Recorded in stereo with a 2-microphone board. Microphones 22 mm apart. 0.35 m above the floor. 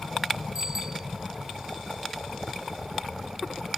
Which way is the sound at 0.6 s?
25° right (ahead or behind).